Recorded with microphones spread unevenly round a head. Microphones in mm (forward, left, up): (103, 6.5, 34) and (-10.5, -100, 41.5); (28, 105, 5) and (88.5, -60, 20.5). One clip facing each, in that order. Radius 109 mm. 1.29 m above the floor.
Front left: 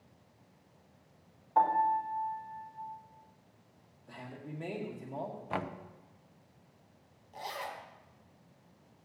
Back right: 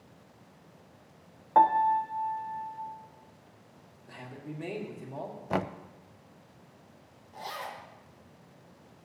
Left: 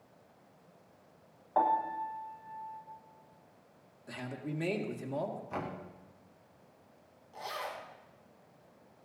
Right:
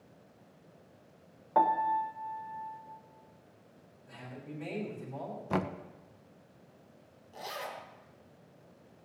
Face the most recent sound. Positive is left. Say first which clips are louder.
# back right 1 dB, even
turn(degrees=-20)